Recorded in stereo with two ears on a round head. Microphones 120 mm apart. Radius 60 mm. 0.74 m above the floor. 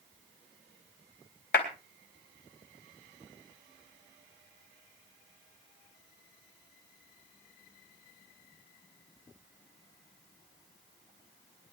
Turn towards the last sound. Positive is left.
turn(degrees=75)  # may be behind; listen again after turning